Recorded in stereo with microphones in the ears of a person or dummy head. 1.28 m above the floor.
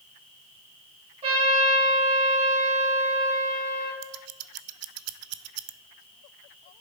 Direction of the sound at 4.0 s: 85° right.